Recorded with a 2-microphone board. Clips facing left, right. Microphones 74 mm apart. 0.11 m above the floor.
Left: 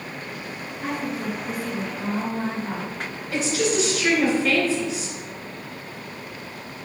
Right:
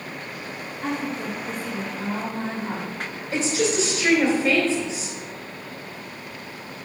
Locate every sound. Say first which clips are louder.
0.8 s a woman speaking: even; 5° left (ahead or behind), 2.0 m
3.3 s a woman speaking: even; 30° right (ahead or behind), 1.7 m